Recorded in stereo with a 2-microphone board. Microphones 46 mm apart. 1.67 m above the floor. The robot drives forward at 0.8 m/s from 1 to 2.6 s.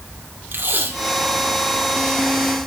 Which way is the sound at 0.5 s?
55° right (ahead or behind).